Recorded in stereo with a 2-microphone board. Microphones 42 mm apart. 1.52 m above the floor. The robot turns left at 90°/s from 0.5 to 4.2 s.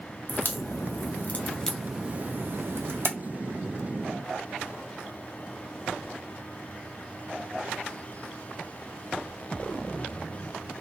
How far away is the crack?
About 0.7 m.